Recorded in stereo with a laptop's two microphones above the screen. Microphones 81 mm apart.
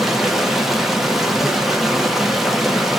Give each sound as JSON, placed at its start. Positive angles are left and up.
{"t": 0.0, "sound": "running water", "side_deg": -5, "distance_m": 1.3}